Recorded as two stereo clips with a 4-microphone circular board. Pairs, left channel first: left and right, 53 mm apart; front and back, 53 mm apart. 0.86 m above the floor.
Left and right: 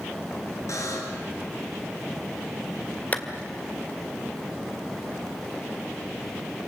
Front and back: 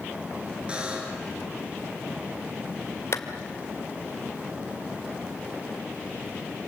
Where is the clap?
30° left, 2 m.